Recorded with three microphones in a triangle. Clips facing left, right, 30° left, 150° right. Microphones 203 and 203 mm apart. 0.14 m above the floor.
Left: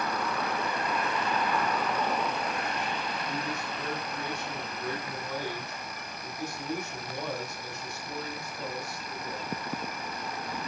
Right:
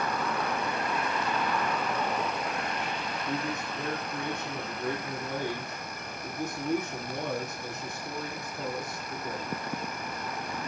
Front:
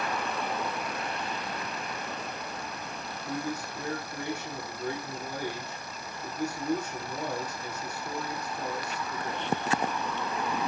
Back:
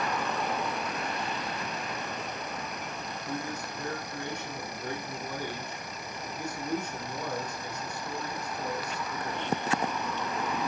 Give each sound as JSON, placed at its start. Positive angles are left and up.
{"t": 3.3, "sound": "a man speaking", "azimuth_deg": -50, "distance_m": 7.0}